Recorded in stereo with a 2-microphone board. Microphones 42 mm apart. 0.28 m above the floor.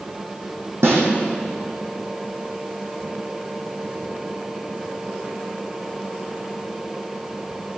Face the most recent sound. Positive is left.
turn(degrees=-85)